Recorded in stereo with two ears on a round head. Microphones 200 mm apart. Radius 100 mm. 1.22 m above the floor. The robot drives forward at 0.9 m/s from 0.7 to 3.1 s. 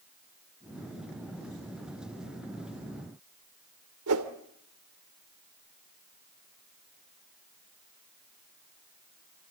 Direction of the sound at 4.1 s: 75° right (ahead or behind).